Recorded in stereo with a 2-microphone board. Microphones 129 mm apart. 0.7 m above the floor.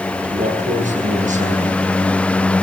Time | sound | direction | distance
0.2 | a man speaking | 75° right (ahead or behind) | 8 m